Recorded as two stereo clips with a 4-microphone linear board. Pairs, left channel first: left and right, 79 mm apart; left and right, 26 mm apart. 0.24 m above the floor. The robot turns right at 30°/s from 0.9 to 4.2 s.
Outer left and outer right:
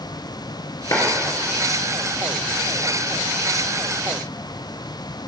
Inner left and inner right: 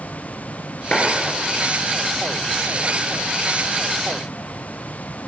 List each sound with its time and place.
0.9 s a clap: 50° left (ahead or behind), 2.5 m; by 1.0 s 45° left (ahead or behind), 2.5 m